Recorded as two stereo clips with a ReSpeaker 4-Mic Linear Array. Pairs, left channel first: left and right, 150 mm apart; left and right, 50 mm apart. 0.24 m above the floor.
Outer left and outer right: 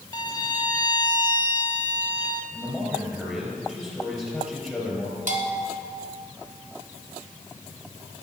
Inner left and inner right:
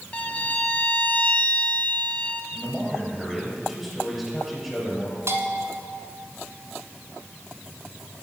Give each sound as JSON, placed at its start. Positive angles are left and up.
{"t": 0.1, "sound": "a violin", "side_deg": 30, "distance_m": 0.8}
{"t": 2.5, "sound": "a man speaking", "side_deg": 0, "distance_m": 4.0}
{"t": 5.3, "sound": "a bell", "side_deg": -65, "distance_m": 1.6}